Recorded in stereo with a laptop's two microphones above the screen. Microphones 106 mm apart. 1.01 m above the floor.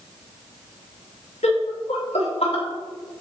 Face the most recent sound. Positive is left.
turn(degrees=65)  # may be behind; listen again after turning